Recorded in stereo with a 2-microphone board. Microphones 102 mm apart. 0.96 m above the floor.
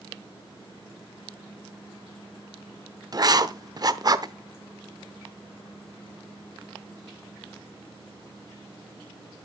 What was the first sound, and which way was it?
Writing, 40° right (ahead or behind).